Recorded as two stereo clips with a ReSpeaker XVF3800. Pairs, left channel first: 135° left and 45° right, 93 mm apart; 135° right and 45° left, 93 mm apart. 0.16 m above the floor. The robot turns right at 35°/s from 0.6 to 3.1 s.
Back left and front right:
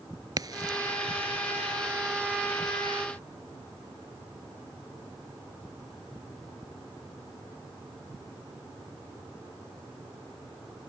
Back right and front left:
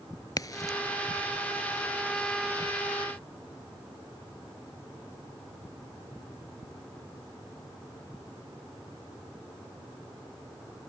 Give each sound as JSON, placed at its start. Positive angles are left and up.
{"t": 0.4, "sound": "a crack", "azimuth_deg": -90}